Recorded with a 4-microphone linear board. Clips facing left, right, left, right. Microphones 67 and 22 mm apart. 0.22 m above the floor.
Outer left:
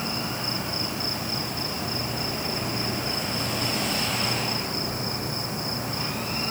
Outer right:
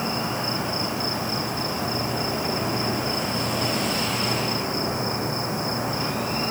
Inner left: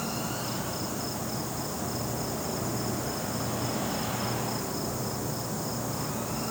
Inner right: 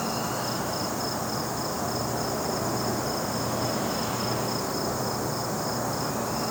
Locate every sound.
0.0 s an insect: 20° right (ahead or behind)